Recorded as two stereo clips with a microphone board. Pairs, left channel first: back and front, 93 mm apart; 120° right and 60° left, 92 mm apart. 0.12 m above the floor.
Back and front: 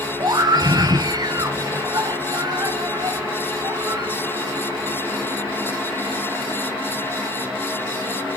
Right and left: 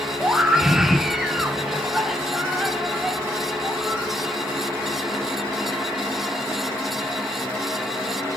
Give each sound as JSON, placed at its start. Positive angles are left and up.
{"t": 0.2, "sound": "a scream", "azimuth_deg": -25, "distance_m": 2.0}